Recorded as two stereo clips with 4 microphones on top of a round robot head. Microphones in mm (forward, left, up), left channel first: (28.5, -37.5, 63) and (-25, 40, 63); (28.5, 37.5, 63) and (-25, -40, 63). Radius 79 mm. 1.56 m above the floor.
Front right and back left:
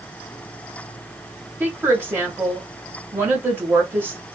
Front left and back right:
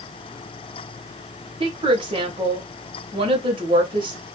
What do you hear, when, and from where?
1.6 s a woman speaking: 165° right, 1.5 m